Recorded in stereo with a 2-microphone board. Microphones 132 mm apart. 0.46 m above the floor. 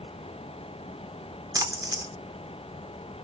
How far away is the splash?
About 1.0 m.